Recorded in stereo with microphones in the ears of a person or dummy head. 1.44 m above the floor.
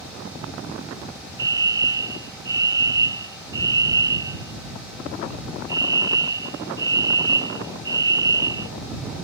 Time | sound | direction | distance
1.4 | a fire alarm | 20° right (ahead or behind) | ?